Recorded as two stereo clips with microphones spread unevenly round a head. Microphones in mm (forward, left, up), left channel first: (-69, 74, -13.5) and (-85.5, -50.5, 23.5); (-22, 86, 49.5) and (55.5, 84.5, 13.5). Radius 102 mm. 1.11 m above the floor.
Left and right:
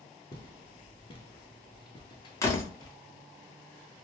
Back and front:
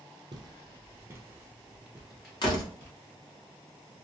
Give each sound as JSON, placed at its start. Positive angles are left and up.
{"t": 0.3, "sound": "footsteps", "azimuth_deg": 25, "distance_m": 1.2}
{"t": 2.4, "sound": "a door slam", "azimuth_deg": 155, "distance_m": 1.4}